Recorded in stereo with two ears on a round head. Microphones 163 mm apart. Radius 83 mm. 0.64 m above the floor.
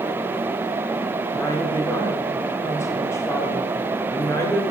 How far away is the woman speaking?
About 1.8 m.